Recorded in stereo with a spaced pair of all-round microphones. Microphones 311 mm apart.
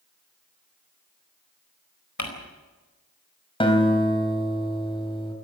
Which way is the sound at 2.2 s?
75° left (ahead or behind).